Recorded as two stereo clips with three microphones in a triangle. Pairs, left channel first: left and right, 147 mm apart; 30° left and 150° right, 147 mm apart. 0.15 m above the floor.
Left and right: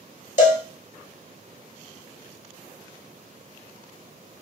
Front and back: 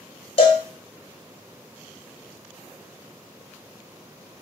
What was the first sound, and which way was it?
A cowbell, 75° left.